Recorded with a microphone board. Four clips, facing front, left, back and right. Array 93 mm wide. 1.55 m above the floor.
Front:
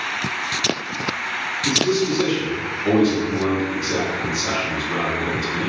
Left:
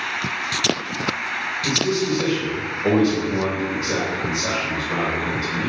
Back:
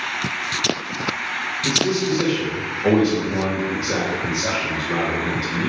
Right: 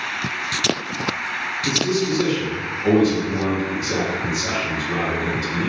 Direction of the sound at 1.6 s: 155° left.